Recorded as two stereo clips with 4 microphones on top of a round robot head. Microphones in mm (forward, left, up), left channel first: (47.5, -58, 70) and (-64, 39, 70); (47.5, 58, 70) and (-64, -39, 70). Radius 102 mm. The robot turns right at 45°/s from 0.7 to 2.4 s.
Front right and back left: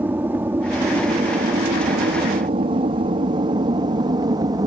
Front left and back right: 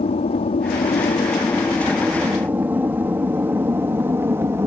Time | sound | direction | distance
0.0 | an aircraft | 65° left | ?